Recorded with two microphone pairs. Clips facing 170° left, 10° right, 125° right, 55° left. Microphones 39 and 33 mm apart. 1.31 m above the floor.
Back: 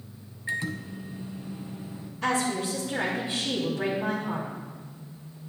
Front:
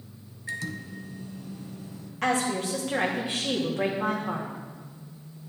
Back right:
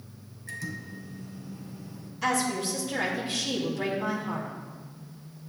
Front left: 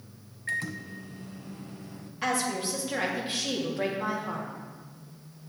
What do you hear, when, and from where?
0.5 s a microwave: 100° left, 0.7 m
2.2 s a woman speaking: 5° right, 3 m